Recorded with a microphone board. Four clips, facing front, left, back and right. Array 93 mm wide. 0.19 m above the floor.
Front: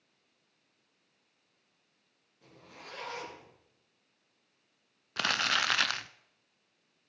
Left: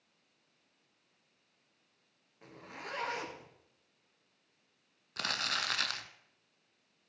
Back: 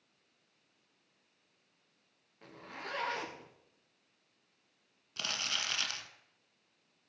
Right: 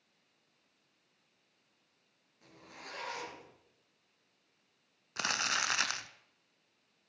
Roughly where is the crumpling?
Ahead.